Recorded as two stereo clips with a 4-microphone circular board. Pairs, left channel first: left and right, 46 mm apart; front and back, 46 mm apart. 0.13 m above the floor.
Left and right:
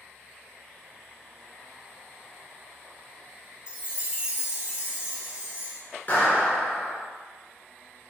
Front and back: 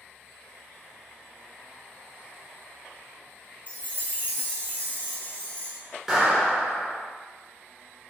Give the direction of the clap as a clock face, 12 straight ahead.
9 o'clock.